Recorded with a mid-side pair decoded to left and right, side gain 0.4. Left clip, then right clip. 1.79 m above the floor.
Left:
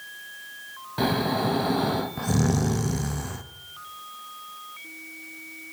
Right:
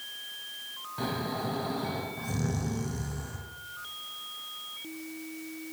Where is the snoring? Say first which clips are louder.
Left 9 dB; 70° left, 1.0 m.